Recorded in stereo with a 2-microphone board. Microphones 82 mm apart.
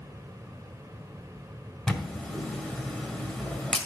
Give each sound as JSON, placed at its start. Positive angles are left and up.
{"t": 1.9, "sound": "a camera shutter", "side_deg": 10, "distance_m": 1.7}